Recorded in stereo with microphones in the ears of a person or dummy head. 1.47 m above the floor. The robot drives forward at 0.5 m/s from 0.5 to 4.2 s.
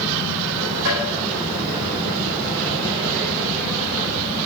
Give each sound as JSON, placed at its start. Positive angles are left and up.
{"t": 0.8, "sound": "tapping", "side_deg": -70, "distance_m": 5.0}